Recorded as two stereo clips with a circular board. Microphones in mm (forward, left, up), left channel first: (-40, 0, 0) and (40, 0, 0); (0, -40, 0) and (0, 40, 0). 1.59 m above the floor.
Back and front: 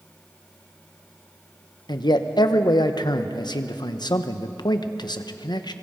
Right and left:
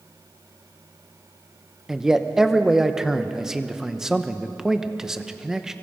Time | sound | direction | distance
1.9 | a man speaking | 175° left | 1.0 m